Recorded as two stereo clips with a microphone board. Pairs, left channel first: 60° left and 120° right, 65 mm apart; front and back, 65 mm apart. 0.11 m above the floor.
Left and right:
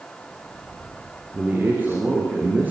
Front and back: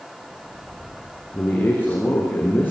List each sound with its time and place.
1.3 s a man speaking: 60° right, 8 m